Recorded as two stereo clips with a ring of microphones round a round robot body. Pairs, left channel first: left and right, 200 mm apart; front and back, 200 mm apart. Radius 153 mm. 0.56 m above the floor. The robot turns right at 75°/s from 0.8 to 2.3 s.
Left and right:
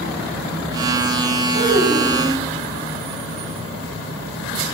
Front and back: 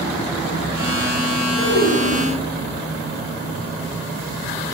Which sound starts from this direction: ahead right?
A child speaking, at 1.5 s.